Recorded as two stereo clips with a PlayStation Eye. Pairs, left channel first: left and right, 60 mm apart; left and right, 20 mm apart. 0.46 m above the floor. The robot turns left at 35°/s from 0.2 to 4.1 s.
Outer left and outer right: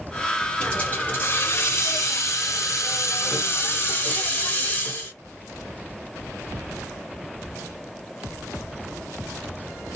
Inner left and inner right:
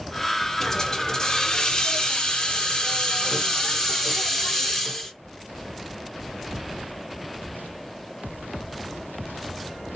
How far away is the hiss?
About 1.5 m.